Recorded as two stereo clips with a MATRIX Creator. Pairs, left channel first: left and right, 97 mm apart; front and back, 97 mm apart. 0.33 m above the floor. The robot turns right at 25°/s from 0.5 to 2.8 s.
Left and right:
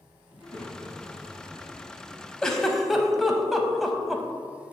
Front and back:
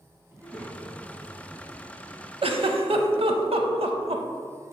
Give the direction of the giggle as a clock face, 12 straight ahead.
6 o'clock.